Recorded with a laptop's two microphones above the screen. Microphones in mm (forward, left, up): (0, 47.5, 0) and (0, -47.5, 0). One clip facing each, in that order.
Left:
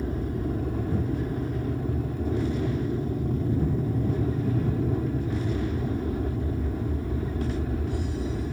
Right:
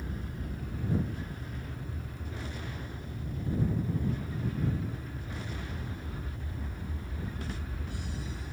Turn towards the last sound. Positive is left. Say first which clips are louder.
# left 11 dB
turn(degrees=60)  # may be behind; listen again after turning